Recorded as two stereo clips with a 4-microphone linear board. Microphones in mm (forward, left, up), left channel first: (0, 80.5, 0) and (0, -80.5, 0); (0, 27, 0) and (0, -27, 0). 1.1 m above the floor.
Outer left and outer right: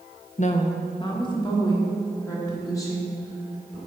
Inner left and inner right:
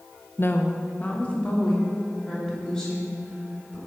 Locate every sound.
0.4 s a woman speaking: 50° left (ahead or behind), 0.5 m; by 3.8 s 20° left (ahead or behind), 4 m